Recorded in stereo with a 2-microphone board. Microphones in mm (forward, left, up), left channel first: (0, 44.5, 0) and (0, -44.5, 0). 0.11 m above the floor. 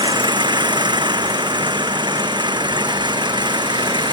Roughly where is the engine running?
Right.